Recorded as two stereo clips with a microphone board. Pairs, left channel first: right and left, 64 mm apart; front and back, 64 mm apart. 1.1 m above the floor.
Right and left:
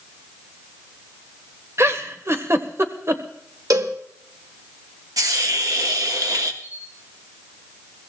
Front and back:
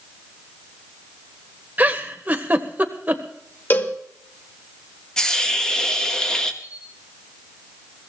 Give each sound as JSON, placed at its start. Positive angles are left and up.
{"t": 1.8, "sound": "a giggle", "azimuth_deg": 120, "distance_m": 1.3}
{"t": 3.7, "sound": "a cowbell", "azimuth_deg": 60, "distance_m": 1.5}
{"t": 5.2, "sound": "a hiss", "azimuth_deg": 80, "distance_m": 1.3}
{"t": 6.6, "sound": "a camera shutter", "azimuth_deg": 35, "distance_m": 4.5}